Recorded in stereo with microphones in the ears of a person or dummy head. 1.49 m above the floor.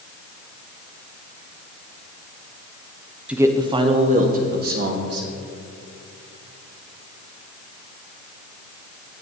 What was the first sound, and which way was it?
A man speaking, centre (ahead or behind).